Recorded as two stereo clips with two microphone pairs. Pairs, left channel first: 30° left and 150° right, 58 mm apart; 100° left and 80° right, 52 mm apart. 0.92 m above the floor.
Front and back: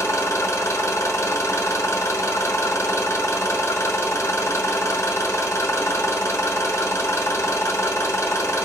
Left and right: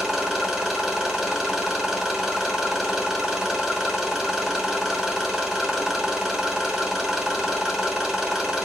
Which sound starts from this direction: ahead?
An engine running, at 0.0 s.